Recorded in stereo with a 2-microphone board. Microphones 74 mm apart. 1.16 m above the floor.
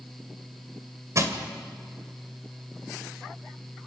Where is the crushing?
45° right (ahead or behind), 2.5 m.